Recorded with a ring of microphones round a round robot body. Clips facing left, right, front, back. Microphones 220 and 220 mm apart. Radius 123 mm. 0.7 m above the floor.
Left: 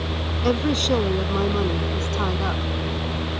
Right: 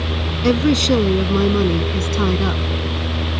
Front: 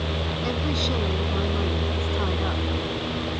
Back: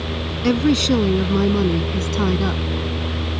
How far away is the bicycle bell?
I don't hear a bicycle bell.